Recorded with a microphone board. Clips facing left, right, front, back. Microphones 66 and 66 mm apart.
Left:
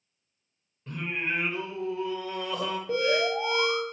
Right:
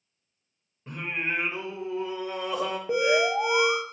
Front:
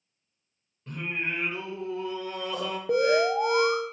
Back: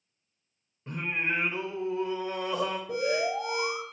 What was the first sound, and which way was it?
Singing, 140° right.